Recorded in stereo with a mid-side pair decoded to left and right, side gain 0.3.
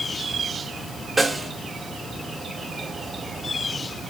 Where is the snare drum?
20° right, 1.1 m.